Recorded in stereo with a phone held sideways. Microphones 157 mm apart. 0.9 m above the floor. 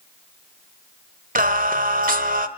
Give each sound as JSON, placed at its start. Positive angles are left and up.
{"t": 1.4, "sound": "singing", "side_deg": -60, "distance_m": 1.3}